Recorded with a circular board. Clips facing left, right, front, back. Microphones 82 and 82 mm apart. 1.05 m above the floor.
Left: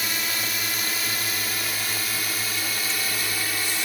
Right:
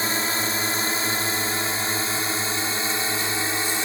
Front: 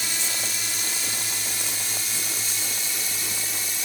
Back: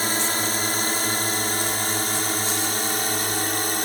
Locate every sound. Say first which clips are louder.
0.0 s a drone: right 5 dB, back 8 dB; 145° right; by 3.9 s 150° right